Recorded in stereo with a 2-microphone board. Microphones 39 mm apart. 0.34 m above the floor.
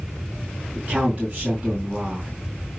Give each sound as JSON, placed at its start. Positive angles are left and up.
{"t": 0.8, "sound": "a man speaking", "side_deg": -25, "distance_m": 3.0}